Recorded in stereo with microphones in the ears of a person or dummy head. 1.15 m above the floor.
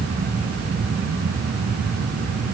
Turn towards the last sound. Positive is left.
No sound to turn to.